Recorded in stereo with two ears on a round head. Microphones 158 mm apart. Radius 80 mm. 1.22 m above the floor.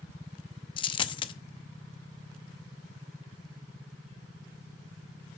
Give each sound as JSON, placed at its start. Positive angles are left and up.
{"t": 0.8, "sound": "a dropped coin", "side_deg": 30, "distance_m": 0.7}